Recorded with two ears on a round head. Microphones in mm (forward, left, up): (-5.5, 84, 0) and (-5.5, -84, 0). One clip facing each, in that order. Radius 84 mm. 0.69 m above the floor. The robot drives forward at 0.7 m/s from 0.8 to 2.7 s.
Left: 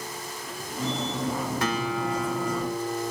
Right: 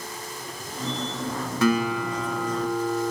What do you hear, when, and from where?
1.6 s a guitar: 80° right, 1.7 m; by 3.1 s 65° right (ahead or behind), 1.9 m